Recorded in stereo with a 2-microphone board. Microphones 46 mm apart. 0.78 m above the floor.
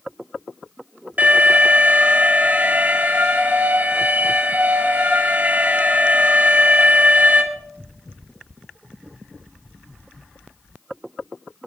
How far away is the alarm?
About 1.6 m.